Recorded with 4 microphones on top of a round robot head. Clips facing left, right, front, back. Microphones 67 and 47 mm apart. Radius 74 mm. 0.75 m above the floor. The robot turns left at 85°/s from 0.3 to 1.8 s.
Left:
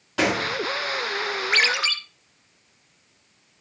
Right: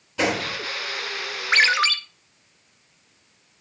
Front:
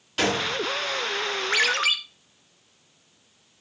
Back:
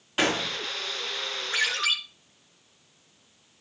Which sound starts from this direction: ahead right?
A ringtone, at 1.5 s.